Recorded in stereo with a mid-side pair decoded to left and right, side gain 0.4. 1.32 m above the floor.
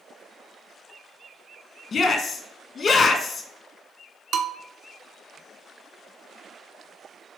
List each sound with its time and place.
1.9 s a shout: 55° left, 1.4 m
4.3 s a bell: 70° right, 0.8 m